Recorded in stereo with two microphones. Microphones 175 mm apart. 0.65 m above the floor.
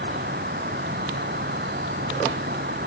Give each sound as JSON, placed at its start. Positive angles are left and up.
{"t": 0.0, "sound": "an insect", "side_deg": -70}